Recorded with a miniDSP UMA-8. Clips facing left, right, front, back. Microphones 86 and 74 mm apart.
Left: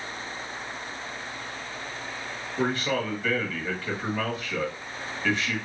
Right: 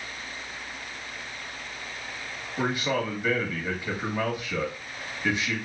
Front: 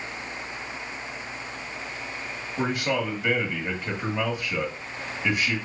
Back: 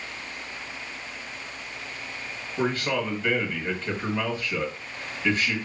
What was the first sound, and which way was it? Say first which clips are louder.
A man speaking: even, even; 55° right.